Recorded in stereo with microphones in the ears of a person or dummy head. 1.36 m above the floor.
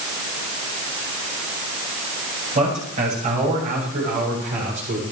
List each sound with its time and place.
2.5 s a man speaking: 40° right (ahead or behind), 7.5 m; by 5.0 s 50° right (ahead or behind), 6 m